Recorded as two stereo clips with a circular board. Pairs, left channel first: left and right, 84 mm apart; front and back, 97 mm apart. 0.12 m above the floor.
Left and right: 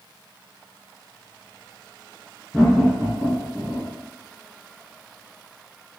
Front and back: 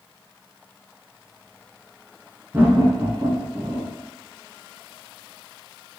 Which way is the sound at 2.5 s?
165° left.